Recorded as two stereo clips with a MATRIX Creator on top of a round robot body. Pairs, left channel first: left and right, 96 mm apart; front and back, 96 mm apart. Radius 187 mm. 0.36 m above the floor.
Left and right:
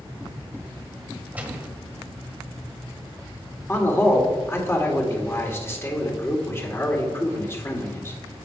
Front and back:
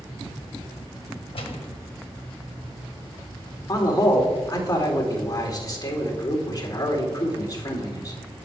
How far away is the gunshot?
About 1.5 m.